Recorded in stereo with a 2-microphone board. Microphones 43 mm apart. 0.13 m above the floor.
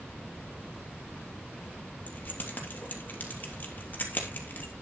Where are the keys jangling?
45° left (ahead or behind), 2.5 m.